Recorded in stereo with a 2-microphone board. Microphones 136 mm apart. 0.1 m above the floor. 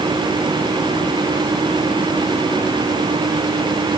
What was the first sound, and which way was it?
Only background noise.